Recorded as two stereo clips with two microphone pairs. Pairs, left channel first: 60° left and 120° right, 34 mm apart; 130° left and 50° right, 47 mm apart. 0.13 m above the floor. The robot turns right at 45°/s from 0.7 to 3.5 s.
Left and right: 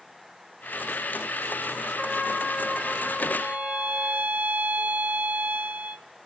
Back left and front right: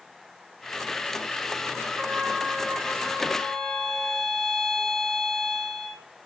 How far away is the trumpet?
About 10 m.